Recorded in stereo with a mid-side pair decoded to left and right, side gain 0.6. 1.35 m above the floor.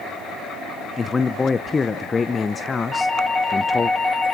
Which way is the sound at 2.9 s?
10° left.